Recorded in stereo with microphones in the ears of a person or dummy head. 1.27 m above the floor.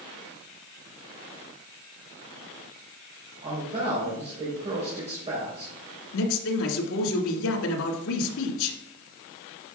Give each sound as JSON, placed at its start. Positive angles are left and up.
{"t": 3.4, "sound": "a man speaking", "side_deg": -25, "distance_m": 4.0}
{"t": 6.1, "sound": "a man speaking", "side_deg": 75, "distance_m": 2.0}